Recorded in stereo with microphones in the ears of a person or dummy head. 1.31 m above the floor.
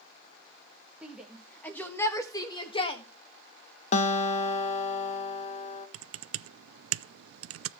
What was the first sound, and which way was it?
A shout, 10° right (ahead or behind).